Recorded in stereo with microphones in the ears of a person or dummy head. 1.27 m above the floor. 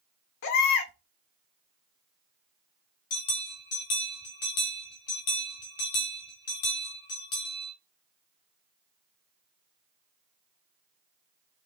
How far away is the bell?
About 1.1 m.